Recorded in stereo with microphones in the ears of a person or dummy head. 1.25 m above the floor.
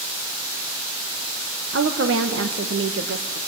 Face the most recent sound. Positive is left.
turn(degrees=-70)  # may be behind; listen again after turning